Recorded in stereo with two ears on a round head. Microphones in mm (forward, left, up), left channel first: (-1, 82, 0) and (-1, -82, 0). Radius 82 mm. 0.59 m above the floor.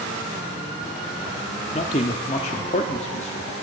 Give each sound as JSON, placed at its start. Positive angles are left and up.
{"t": 1.7, "sound": "a man speaking", "side_deg": 35, "distance_m": 0.9}